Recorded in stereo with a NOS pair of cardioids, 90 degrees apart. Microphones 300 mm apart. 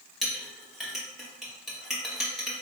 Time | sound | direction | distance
0.2 | a clink | straight ahead | 1.8 m